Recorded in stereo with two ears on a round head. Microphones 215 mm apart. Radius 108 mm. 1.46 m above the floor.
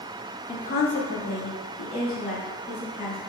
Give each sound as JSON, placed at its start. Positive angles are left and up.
{"t": 0.5, "sound": "a woman speaking", "side_deg": 15, "distance_m": 0.6}